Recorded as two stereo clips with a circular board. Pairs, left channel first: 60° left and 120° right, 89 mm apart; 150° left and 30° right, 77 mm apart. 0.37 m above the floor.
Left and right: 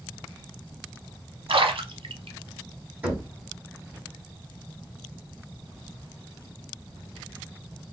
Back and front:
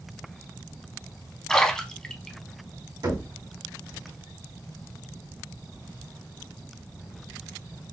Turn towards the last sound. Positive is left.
turn(degrees=-50)